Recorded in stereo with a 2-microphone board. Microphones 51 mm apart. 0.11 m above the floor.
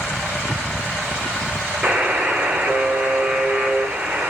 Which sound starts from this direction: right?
A buzzer, at 1.8 s.